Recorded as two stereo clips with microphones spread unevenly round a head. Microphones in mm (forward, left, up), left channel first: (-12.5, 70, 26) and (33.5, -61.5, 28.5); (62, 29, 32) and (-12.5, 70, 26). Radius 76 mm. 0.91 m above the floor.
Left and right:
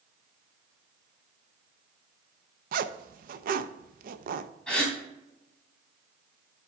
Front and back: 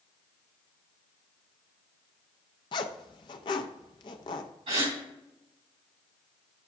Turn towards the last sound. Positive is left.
turn(degrees=-165)